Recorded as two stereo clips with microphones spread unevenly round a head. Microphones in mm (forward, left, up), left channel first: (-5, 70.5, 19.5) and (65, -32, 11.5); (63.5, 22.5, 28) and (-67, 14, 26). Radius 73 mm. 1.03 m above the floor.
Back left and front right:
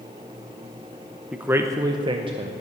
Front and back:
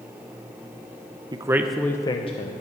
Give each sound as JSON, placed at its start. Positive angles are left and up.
{"t": 1.3, "sound": "a man speaking", "azimuth_deg": -130, "distance_m": 0.8}